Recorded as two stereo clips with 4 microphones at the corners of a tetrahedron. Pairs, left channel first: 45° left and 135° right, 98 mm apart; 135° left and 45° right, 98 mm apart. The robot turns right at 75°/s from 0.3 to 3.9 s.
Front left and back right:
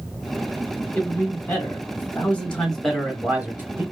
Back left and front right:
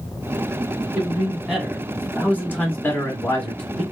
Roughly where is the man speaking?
Ahead.